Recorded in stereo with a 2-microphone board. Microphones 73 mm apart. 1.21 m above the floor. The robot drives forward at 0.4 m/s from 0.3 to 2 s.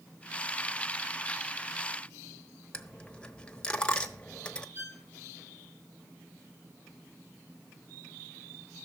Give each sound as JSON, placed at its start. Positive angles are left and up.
{"t": 2.7, "sound": "a dropped coin", "side_deg": 15, "distance_m": 1.0}
{"t": 4.8, "sound": "a violin", "side_deg": -35, "distance_m": 2.0}